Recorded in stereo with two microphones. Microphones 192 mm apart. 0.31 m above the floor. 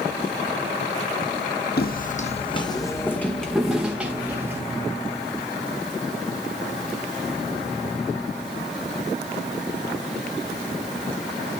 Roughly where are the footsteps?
Left.